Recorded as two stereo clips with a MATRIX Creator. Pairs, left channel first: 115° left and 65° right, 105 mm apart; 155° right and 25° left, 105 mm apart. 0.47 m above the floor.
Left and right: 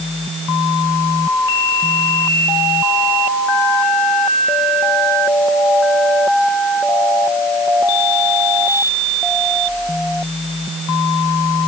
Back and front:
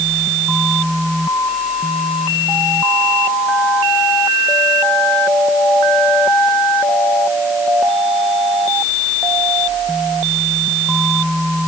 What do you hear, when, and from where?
Only background noise.